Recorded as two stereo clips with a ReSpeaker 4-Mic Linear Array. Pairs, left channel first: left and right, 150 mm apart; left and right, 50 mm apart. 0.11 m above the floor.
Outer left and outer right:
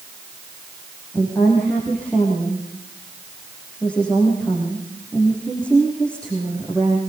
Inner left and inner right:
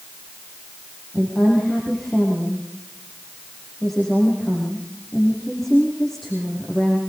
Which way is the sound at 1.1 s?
5° left (ahead or behind).